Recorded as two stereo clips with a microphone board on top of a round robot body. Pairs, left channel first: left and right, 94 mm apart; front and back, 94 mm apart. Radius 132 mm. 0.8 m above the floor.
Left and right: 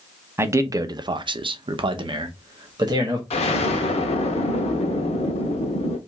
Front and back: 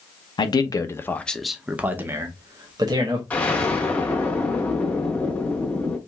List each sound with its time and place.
0.4 s a man speaking: 30° right, 0.8 m; by 3.2 s 140° right, 1.3 m
3.3 s an explosion: 75° left, 0.6 m